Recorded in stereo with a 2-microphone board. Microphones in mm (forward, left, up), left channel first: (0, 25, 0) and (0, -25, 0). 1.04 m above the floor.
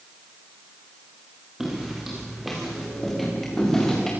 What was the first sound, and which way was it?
Footsteps, 10° right (ahead or behind).